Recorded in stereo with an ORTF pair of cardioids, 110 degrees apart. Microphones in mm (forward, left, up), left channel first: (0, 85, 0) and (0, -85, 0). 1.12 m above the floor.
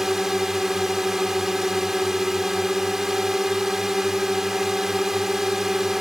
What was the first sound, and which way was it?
A drone, straight ahead.